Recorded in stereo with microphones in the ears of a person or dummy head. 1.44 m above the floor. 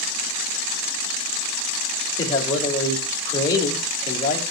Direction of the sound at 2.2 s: 25° left (ahead or behind).